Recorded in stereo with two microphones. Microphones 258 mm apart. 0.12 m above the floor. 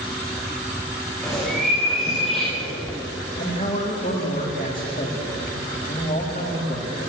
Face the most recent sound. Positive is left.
turn(degrees=30)  # may be behind; listen again after turning